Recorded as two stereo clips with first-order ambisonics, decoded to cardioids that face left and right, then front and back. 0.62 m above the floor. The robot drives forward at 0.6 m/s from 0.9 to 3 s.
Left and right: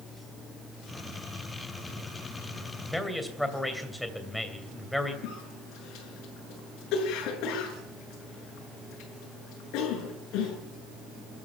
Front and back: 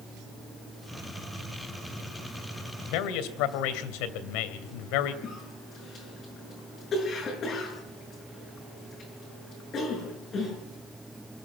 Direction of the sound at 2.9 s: 5° left.